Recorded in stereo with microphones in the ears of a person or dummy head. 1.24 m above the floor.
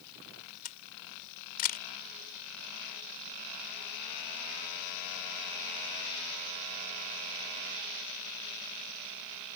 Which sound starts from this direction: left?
A camera shutter, at 0.7 s.